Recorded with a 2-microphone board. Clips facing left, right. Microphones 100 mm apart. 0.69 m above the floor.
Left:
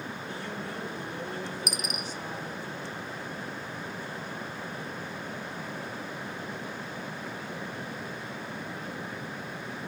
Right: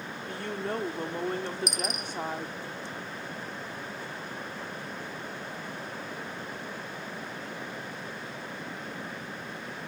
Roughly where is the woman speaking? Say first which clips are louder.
Right 8 dB; right.